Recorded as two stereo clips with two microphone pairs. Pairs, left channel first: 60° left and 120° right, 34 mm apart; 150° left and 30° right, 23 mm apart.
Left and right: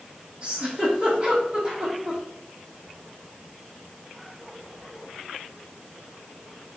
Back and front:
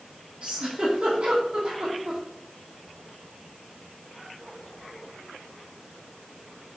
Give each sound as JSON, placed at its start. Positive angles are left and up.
{"t": 0.4, "sound": "a giggle", "azimuth_deg": -65, "distance_m": 2.0}